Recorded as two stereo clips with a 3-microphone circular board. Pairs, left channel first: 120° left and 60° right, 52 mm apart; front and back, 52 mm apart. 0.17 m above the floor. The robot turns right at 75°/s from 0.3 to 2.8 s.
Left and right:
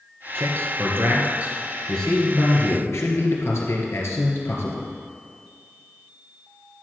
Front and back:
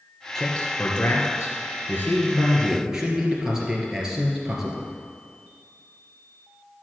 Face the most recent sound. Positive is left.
turn(degrees=105)